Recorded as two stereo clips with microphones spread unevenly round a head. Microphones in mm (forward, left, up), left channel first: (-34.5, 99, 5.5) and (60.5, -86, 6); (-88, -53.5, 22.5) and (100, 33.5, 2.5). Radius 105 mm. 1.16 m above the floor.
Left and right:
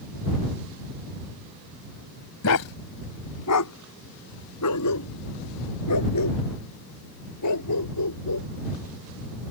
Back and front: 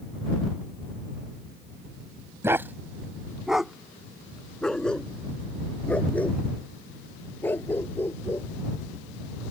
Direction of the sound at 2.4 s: 105° left.